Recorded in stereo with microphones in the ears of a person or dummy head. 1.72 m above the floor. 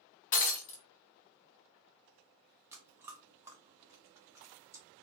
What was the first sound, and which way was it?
Breaking glass, 45° left (ahead or behind).